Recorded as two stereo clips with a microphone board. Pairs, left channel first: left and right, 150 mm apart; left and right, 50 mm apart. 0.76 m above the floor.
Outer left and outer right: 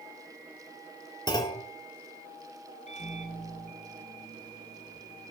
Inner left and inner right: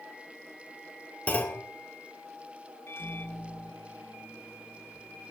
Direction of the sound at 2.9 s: 50° left (ahead or behind).